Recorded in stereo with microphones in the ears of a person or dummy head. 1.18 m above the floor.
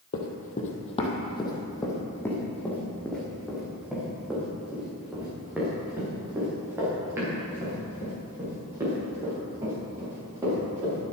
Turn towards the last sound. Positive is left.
turn(degrees=-20)  # may be behind; listen again after turning